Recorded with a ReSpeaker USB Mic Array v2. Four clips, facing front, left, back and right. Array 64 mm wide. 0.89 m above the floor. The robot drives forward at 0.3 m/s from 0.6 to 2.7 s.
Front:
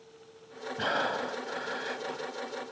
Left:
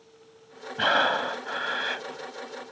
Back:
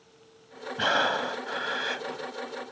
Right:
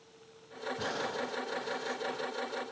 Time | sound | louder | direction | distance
0.8 | breathing | left 14 dB, back 5 dB | 110° left | ?